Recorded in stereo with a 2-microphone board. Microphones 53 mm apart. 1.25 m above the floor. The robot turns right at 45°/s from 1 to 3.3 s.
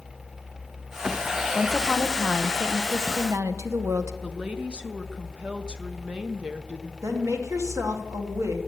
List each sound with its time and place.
1.6 s a woman speaking: 170° left, 0.9 m; by 4.1 s 110° right, 0.9 m
4.2 s a woman speaking: 20° right (ahead or behind), 0.9 m
7.0 s a woman speaking: 70° right (ahead or behind), 1.7 m